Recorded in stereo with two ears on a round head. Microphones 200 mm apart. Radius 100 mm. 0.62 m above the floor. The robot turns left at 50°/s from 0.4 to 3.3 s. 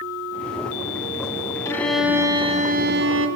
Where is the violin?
15° left, 2 m; by 3.3 s 65° right, 2 m.